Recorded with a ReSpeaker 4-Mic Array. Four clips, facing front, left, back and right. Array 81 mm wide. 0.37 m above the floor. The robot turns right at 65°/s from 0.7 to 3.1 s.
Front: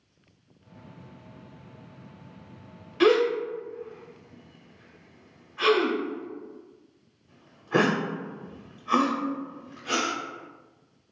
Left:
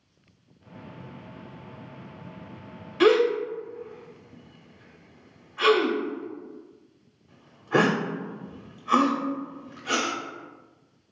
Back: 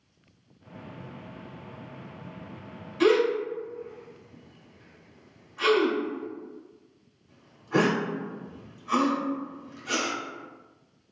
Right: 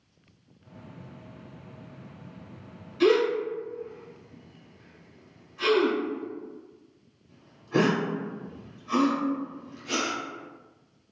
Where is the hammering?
I don't hear hammering.